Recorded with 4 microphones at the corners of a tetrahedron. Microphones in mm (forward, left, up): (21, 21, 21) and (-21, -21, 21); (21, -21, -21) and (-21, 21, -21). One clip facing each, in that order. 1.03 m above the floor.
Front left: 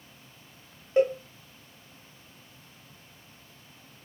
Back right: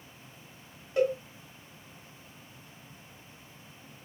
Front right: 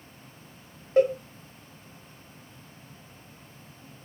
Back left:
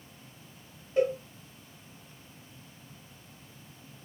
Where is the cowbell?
15° right, 1.2 m.